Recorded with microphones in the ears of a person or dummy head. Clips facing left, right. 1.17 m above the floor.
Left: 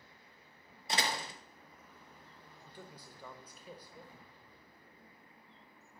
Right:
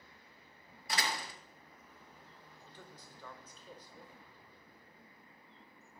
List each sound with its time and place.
0.9 s a door slam: 30° left (ahead or behind), 1.2 m
2.7 s a man speaking: 10° left (ahead or behind), 0.9 m